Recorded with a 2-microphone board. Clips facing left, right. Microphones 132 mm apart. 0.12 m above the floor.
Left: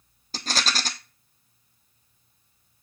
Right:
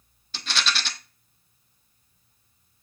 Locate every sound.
0.3 s a rattle: 40° left (ahead or behind), 1.2 m